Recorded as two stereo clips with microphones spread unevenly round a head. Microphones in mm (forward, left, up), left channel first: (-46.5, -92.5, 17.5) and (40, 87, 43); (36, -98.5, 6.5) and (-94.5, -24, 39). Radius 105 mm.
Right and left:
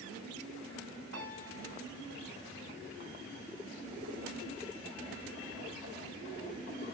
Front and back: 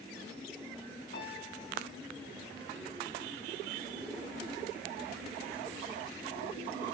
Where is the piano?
30° left, 8.5 m.